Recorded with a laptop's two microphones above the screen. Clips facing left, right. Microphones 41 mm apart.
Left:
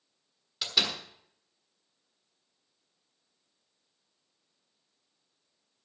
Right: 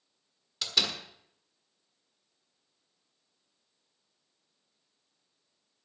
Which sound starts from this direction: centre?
A door slam, at 0.6 s.